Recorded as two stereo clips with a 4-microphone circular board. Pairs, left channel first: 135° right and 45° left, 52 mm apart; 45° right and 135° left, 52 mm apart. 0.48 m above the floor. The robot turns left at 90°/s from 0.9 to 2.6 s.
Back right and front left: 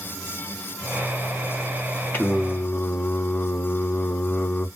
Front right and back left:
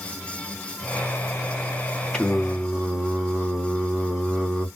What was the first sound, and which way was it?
Singing, 110° right.